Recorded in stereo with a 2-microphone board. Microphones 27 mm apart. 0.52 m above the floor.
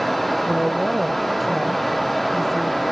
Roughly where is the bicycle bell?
No bicycle bell in this recording.